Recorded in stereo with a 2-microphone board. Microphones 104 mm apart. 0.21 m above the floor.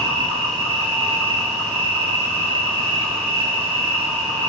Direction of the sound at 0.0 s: 80° right.